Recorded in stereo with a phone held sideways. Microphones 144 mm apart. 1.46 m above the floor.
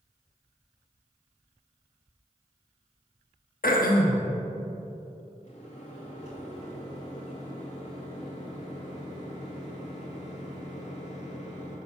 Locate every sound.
3.6 s throat clearing: 80° left, 0.7 m
5.4 s a microwave: 50° left (ahead or behind), 1.9 m